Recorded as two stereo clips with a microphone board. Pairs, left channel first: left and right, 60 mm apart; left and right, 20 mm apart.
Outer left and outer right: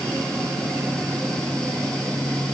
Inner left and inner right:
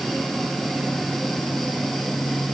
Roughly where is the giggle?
I don't hear a giggle.